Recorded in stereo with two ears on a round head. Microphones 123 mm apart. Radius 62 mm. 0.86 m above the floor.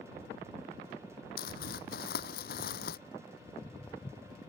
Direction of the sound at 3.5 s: 20° left (ahead or behind).